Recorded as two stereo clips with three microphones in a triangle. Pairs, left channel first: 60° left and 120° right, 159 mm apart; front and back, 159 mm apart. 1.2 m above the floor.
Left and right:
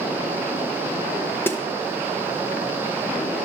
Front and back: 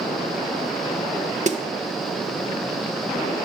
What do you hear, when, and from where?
1.5 s a snare drum: 135° left, 0.5 m